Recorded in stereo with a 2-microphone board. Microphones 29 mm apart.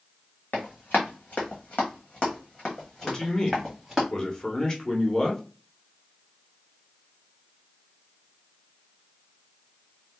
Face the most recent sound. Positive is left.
turn(degrees=25)  # may be behind; listen again after turning